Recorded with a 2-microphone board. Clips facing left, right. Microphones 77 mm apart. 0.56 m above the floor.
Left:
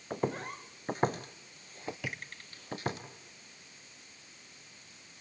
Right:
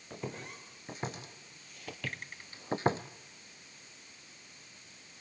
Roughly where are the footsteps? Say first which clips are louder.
Left 8 dB; left.